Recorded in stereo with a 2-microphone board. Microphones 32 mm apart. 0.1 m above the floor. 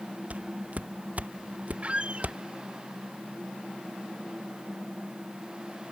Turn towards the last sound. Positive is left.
turn(degrees=-40)  # may be behind; listen again after turning